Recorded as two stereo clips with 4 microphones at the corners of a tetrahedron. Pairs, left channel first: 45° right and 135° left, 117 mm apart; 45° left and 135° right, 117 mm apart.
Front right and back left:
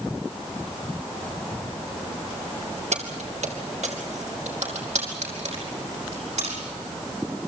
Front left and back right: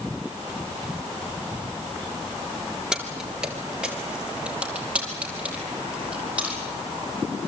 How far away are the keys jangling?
About 2.5 m.